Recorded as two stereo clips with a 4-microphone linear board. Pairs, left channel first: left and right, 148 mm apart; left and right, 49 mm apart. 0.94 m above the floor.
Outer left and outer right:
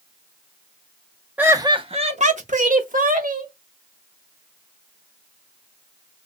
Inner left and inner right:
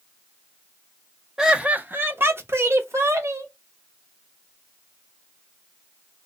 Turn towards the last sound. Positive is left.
turn(degrees=-70)  # may be behind; listen again after turning